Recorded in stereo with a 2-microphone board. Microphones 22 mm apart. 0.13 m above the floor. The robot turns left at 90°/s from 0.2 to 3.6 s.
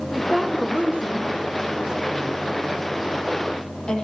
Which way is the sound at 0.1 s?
Centre (ahead or behind).